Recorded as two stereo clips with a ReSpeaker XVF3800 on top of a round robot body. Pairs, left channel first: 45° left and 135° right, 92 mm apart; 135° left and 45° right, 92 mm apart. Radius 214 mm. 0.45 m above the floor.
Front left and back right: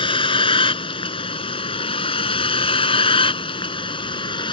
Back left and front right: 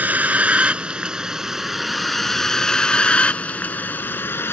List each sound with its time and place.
0.0 s a vehicle: 25° left; by 4.5 s 70° left